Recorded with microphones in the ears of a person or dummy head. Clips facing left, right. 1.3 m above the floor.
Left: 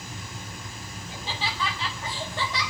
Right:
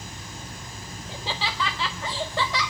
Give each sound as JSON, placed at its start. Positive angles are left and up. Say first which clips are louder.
{"t": 0.0, "sound": "an engine running", "louder": "even", "side_deg": -30, "distance_m": 9.0}
{"t": 1.1, "sound": "laughter", "louder": "right 2 dB", "side_deg": -55, "distance_m": 1.1}